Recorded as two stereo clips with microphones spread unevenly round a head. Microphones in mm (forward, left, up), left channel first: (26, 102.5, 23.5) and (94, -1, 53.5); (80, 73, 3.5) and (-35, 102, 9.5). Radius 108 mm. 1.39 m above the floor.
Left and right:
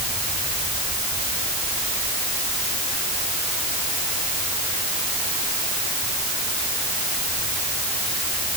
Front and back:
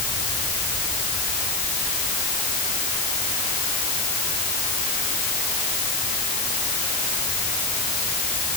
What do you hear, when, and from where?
Only background noise.